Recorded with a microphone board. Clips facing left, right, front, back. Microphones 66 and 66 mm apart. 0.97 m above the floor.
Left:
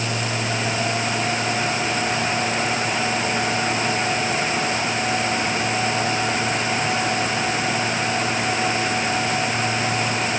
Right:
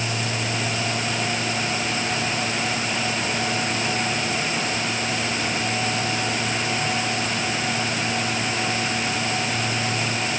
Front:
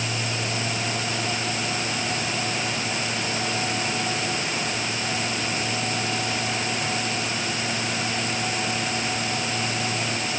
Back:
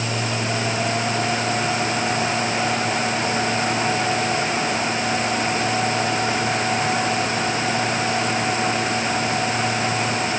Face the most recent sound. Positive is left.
No sound to turn to.